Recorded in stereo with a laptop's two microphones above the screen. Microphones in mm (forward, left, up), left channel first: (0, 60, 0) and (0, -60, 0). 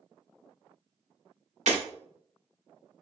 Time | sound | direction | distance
1.7 | breaking glass | 85° right | 1.7 m